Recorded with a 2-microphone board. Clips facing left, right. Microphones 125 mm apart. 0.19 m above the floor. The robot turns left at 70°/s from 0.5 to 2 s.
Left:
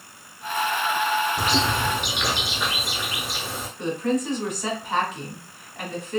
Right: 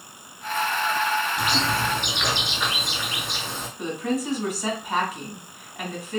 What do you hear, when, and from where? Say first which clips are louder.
1.4 s a bird: left 1 dB; 50° left, 0.7 m; by 3.7 s 5° left, 0.7 m
3.8 s a woman speaking: left 2 dB; 5° right (ahead or behind), 1.5 m